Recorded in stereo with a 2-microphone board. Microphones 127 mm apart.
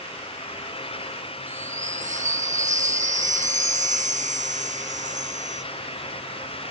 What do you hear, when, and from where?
1.5 s a chime: 75° right (ahead or behind)